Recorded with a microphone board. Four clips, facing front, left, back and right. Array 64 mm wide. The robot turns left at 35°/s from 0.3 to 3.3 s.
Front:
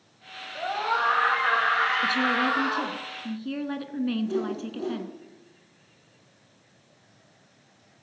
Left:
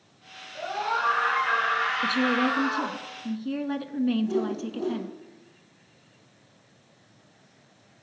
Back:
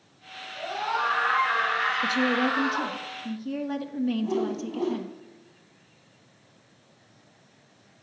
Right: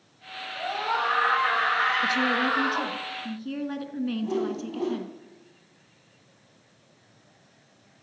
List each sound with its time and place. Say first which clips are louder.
0.6 s a scream: even, front 2 dB; 10° left, 6 m; by 3.0 s 75° right, 6 m
2.0 s a woman speaking: even, even; 55° left, 1.1 m; by 5.1 s 10° left, 1.1 m
4.2 s a whoosh: left 1 dB, back 1 dB; 140° right, 2.5 m